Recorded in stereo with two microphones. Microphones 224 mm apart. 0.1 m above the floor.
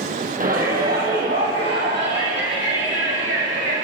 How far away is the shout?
About 3.5 m.